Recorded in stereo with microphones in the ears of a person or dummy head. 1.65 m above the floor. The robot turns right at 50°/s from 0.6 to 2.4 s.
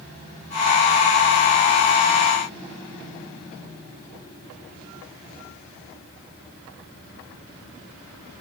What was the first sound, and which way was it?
Only background noise.